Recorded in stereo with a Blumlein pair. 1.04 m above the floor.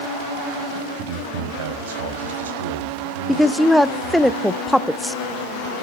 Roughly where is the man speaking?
Ahead right.